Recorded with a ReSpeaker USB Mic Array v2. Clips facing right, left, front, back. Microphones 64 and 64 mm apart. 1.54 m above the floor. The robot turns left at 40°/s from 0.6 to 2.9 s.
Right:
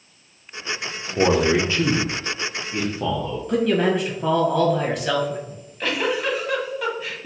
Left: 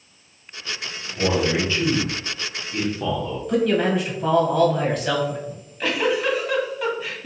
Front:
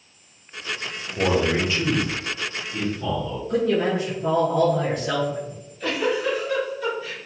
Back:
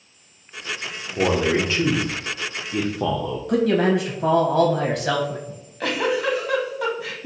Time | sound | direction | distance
1.2 | a man speaking | 105° right | 0.6 m
3.5 | a man speaking | 175° right | 1.0 m
5.5 | a giggle | straight behind | 0.9 m